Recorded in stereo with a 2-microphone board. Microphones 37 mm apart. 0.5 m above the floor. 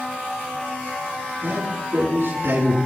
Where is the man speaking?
75° right (ahead or behind), 6.5 m.